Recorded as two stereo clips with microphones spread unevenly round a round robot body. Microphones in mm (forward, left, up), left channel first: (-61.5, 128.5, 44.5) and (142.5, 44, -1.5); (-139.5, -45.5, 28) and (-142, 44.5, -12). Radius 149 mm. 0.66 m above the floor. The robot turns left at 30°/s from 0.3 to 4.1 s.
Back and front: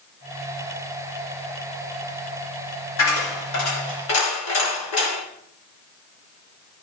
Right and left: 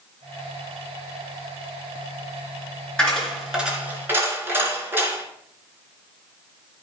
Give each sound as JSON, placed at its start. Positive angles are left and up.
{"t": 3.0, "sound": "a dropped coin", "azimuth_deg": -165, "distance_m": 3.0}